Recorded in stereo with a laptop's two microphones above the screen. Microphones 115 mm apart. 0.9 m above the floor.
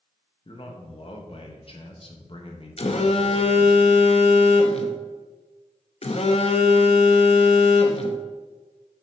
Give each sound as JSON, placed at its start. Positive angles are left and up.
{"t": 0.5, "sound": "a man speaking", "side_deg": 50, "distance_m": 1.1}
{"t": 2.8, "sound": "a phone buzzing", "side_deg": 60, "distance_m": 0.7}